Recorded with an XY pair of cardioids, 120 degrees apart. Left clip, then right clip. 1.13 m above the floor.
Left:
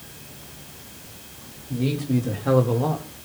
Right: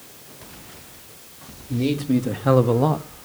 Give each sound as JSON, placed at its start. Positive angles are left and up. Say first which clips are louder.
{"t": 1.7, "sound": "a man speaking", "louder": "right 3 dB", "azimuth_deg": -30, "distance_m": 3.0}